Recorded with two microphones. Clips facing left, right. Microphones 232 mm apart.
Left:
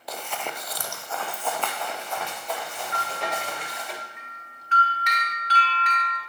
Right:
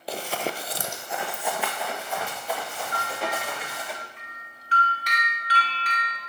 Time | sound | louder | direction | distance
0.1 | running footsteps | right 5 dB | 35° right (ahead or behind) | 0.6 m
2.9 | a bell | right 1 dB | 35° right (ahead or behind) | 1.8 m